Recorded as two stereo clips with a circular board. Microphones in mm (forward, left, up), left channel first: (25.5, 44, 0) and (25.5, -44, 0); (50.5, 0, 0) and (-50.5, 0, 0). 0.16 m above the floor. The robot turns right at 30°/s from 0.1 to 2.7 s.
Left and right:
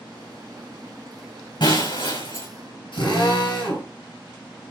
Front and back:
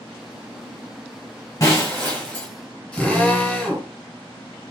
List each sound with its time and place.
1.6 s breaking glass: 55° left, 6 m; by 2.5 s 85° left, 6 m
2.9 s a drill: 80° left, 4 m